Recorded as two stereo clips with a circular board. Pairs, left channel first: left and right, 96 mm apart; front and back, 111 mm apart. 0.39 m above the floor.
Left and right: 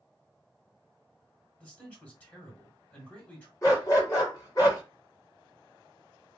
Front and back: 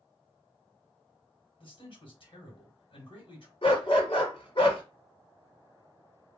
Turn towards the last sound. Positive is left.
turn(degrees=35)